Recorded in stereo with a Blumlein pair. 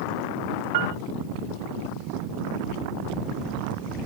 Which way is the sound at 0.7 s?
50° right.